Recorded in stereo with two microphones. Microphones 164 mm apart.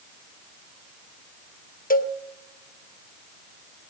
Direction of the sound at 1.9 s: 60° left (ahead or behind).